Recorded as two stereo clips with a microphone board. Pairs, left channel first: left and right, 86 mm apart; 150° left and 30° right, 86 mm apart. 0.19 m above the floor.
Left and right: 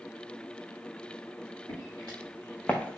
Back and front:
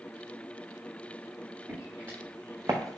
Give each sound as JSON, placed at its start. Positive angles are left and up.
{"t": 1.7, "sound": "footsteps", "azimuth_deg": 40, "distance_m": 2.0}